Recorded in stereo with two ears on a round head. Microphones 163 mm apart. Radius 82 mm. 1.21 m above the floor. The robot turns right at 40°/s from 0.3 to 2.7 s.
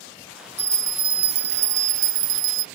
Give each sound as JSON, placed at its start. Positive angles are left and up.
{"t": 0.6, "sound": "a bell", "azimuth_deg": -165}